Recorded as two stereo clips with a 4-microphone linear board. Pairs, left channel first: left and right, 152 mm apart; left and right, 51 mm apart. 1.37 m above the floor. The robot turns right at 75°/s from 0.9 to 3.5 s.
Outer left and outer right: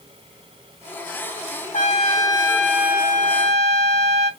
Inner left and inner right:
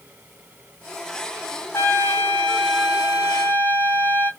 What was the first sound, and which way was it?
A trumpet, 110° left.